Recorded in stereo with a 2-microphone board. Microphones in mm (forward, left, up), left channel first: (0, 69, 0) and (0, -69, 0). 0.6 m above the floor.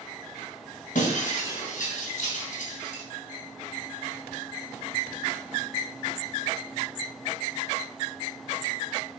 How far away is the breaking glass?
About 3 m.